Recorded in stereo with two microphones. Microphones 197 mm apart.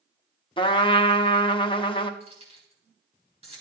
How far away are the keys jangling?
About 4.5 m.